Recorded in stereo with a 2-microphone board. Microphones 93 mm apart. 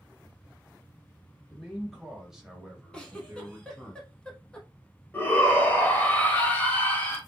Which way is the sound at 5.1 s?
20° left (ahead or behind).